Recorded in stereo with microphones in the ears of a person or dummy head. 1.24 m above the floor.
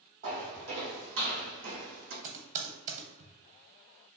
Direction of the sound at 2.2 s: 45° right (ahead or behind).